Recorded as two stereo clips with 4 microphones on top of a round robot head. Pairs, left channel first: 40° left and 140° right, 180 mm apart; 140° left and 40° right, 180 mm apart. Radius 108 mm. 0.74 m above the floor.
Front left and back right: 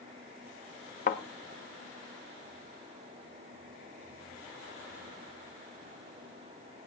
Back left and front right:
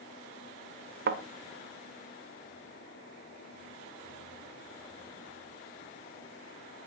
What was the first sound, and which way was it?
A thud, 5° right.